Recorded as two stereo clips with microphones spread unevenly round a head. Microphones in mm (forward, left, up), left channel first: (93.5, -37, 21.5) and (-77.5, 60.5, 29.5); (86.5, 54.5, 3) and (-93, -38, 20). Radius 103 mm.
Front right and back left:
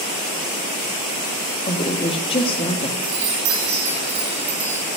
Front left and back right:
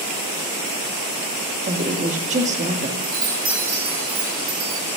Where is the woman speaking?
95° right, 1.9 m.